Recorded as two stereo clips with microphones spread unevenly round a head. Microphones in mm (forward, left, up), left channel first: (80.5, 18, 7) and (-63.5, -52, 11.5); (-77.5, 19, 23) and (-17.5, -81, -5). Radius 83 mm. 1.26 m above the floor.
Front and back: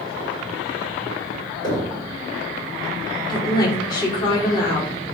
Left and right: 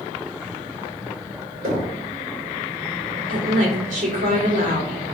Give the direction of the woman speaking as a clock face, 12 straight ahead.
1 o'clock.